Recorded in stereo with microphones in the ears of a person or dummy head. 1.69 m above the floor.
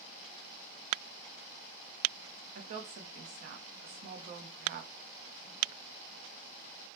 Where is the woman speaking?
50° right (ahead or behind), 0.5 m.